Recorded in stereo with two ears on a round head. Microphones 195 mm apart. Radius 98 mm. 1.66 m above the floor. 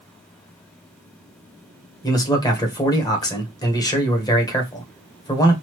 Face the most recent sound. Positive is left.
turn(degrees=20)  # may be behind; listen again after turning